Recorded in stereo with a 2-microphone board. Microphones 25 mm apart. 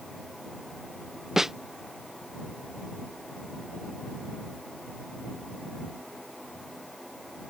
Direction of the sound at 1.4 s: 15° right (ahead or behind).